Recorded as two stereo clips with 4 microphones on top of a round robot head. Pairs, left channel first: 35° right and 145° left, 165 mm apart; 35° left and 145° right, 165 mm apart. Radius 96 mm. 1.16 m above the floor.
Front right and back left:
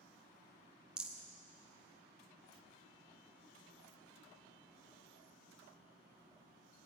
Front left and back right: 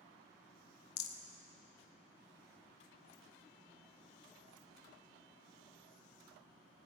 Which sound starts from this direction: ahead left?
A rattle, at 1.0 s.